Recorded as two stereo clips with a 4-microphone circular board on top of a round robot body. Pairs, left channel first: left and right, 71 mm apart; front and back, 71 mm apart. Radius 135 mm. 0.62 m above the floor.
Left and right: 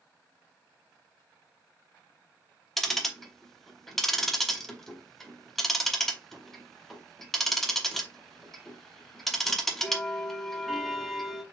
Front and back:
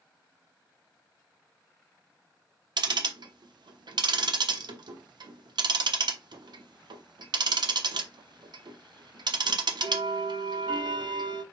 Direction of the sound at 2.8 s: 175° left.